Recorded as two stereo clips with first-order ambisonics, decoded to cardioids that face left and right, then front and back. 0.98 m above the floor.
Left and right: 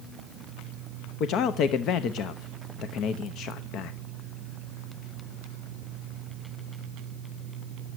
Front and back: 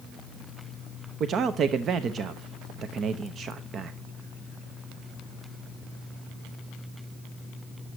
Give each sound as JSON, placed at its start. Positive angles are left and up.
{"t": 1.2, "sound": "a man speaking", "azimuth_deg": 125, "distance_m": 0.8}